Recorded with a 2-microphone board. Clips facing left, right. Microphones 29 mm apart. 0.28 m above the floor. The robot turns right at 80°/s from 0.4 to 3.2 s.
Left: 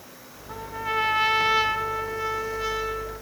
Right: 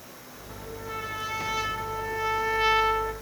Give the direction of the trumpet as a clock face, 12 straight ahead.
10 o'clock.